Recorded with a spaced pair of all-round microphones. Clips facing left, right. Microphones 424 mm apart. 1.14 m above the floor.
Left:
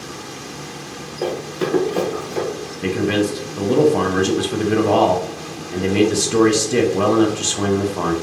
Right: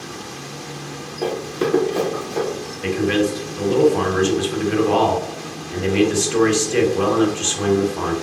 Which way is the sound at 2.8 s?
60° left (ahead or behind).